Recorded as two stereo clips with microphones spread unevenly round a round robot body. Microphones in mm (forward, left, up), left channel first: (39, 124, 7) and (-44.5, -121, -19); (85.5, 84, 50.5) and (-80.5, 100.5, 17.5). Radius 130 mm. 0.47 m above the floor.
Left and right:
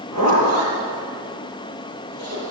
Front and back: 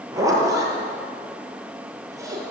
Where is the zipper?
105° left, 8 m.